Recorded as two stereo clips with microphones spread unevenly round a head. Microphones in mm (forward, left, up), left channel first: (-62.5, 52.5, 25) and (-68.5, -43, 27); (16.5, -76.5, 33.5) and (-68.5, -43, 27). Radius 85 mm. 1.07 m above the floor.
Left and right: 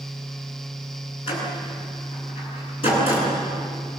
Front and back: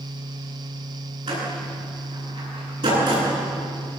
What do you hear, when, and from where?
1.3 s a door slam: 105° left, 10 m